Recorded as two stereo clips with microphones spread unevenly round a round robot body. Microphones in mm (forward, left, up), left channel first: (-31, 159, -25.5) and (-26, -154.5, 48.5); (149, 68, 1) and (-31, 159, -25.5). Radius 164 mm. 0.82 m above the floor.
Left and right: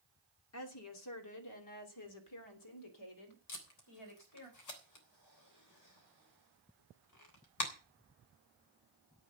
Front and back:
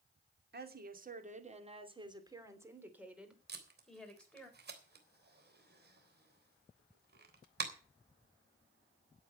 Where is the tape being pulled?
120° left, 3.5 m.